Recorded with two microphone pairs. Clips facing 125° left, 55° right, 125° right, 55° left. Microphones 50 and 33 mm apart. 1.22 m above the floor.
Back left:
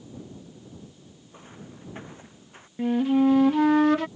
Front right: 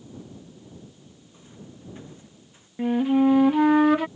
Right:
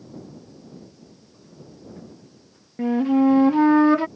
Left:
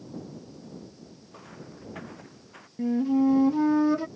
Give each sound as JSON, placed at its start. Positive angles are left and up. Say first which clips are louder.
{"t": 1.3, "sound": "footsteps", "louder": "back left 2 dB, left 3 dB", "azimuth_deg": 75}
{"t": 2.8, "sound": "a flute", "louder": "front right 1 dB, right 5 dB", "azimuth_deg": -130}